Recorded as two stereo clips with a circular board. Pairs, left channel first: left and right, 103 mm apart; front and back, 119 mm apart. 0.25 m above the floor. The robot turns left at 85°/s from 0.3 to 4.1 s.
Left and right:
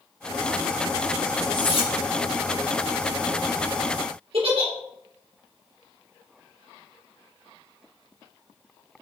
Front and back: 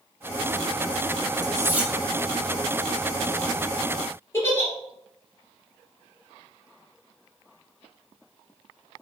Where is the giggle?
70° right, 2.5 m.